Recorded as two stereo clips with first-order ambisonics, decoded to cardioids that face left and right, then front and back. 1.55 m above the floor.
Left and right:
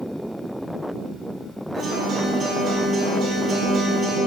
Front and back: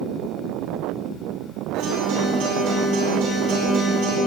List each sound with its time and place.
1.7 s a guitar: 160° right, 4.5 m